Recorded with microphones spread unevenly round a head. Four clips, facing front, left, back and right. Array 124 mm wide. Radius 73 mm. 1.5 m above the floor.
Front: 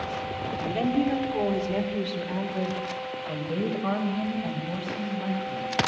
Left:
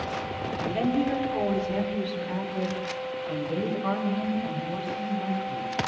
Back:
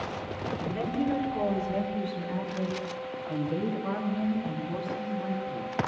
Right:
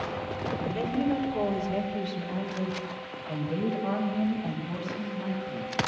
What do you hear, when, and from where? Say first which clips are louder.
0.6 s a woman speaking: left 3 dB, front 5 dB; 30° left, 5.5 m; by 5.7 s 15° left, 12 m